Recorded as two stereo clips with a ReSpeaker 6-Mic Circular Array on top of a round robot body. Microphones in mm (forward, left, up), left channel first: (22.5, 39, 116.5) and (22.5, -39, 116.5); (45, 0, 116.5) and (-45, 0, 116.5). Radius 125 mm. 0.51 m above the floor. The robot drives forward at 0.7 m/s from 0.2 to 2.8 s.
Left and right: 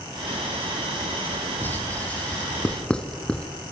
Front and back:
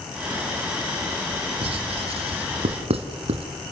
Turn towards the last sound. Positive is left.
turn(degrees=170)